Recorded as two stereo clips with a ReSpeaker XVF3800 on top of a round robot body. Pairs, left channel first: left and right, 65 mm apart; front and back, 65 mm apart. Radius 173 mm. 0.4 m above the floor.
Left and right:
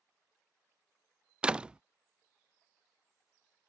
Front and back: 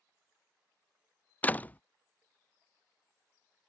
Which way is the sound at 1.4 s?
30° right.